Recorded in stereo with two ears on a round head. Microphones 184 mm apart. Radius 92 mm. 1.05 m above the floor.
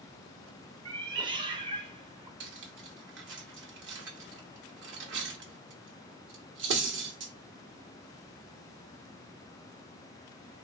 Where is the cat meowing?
20° right (ahead or behind), 0.6 m.